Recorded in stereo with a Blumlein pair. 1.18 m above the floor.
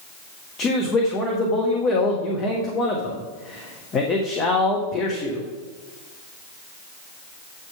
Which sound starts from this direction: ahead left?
A man speaking, at 0.6 s.